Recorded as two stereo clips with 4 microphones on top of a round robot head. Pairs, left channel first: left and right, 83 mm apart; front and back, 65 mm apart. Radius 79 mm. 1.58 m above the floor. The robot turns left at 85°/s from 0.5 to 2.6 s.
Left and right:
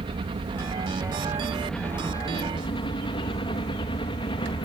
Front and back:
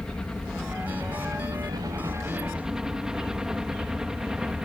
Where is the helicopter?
85° right; by 4.7 s 100° left.